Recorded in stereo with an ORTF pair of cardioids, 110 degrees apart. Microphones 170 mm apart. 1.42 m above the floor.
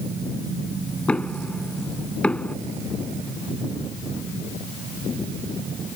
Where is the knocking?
5° left.